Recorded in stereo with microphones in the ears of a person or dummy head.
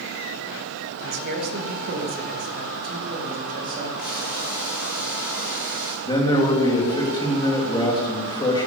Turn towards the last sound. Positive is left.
turn(degrees=25)  # may be behind; listen again after turning